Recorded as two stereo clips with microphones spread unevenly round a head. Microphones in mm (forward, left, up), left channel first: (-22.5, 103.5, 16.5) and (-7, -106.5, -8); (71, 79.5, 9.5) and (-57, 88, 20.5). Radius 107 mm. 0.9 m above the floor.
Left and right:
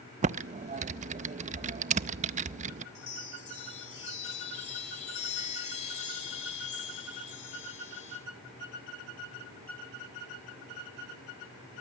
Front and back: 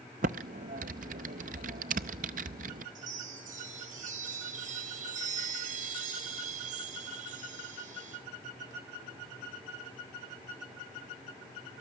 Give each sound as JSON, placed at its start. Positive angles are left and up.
{"t": 0.2, "sound": "typing on a keyboard", "azimuth_deg": -140, "distance_m": 0.5}
{"t": 3.0, "sound": "a chime", "azimuth_deg": 155, "distance_m": 4.5}